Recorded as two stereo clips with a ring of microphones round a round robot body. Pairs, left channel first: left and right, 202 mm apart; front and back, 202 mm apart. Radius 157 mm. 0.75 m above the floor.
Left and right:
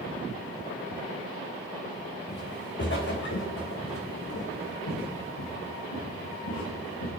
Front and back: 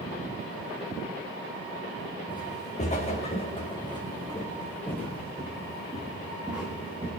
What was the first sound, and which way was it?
Footsteps, 50° left.